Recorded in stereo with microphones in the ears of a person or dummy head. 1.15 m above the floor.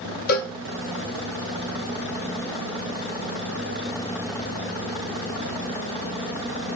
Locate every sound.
0.3 s a cowbell: 50° left (ahead or behind), 0.9 m